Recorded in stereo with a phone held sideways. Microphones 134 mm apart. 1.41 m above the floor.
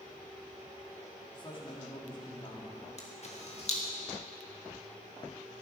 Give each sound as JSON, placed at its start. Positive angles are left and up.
{"t": 1.3, "sound": "a man speaking", "side_deg": 35, "distance_m": 2.5}
{"t": 3.0, "sound": "a camera shutter", "side_deg": 50, "distance_m": 1.9}